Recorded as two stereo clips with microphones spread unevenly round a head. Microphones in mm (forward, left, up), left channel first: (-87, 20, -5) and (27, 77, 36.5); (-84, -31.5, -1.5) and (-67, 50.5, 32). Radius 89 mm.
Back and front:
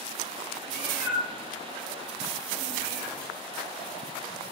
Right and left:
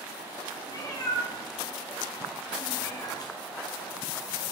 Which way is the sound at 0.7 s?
145° right.